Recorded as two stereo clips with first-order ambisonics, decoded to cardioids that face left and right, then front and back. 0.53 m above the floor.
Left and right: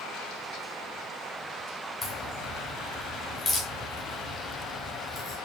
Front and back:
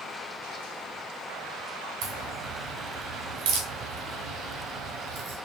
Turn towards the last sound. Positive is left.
turn(degrees=165)